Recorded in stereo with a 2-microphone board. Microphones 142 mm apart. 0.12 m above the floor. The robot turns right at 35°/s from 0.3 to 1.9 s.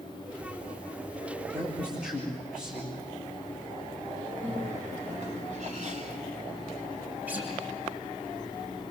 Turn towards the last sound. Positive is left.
turn(degrees=-10)  # may be behind; listen again after turning